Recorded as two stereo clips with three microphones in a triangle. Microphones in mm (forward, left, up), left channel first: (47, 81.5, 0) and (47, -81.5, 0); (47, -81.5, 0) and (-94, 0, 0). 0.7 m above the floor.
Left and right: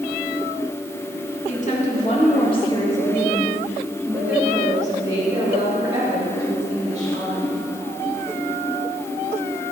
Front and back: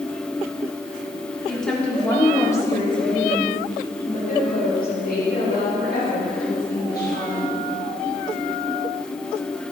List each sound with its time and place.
1.5 s a woman speaking: 60° left, 1.9 m; by 7.6 s 50° right, 3 m